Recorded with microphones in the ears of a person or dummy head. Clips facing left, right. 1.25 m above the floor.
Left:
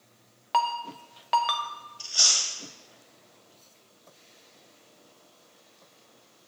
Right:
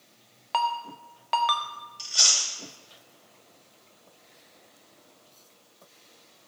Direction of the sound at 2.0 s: 30° right (ahead or behind).